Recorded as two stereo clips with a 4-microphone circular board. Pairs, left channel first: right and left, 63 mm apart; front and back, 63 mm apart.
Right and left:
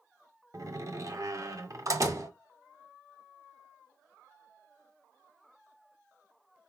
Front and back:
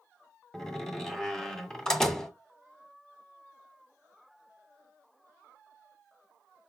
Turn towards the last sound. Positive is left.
turn(degrees=80)